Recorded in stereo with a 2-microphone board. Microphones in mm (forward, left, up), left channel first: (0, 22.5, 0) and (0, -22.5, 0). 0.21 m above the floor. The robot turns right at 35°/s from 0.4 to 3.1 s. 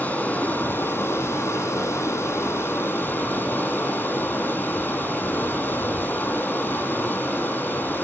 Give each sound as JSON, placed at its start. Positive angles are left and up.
{"t": 0.0, "sound": "running water", "azimuth_deg": 40, "distance_m": 5.0}